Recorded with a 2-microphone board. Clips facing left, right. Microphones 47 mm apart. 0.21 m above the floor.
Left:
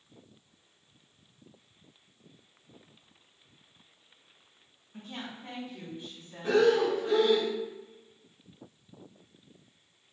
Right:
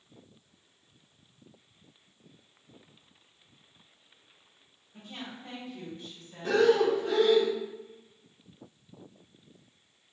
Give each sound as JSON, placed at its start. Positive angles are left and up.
{"t": 4.9, "sound": "a woman speaking", "side_deg": 50, "distance_m": 1.9}
{"t": 6.4, "sound": "breathing", "side_deg": 5, "distance_m": 1.2}